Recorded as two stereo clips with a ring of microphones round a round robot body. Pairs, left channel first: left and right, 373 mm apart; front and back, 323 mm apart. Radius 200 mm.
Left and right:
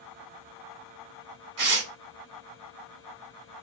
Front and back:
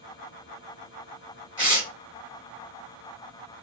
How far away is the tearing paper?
About 2.5 m.